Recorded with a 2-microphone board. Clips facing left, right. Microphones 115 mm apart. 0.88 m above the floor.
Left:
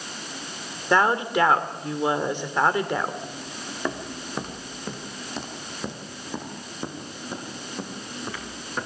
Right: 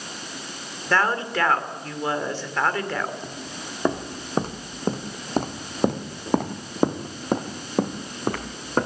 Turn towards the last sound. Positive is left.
turn(degrees=-50)  # may be behind; listen again after turning